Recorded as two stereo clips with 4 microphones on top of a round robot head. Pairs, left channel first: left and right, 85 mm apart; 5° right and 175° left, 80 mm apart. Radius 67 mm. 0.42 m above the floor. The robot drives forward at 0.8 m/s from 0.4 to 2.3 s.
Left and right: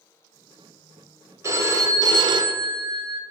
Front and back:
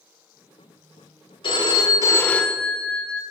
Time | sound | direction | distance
1.4 | a phone ringing | 30° right | 0.9 m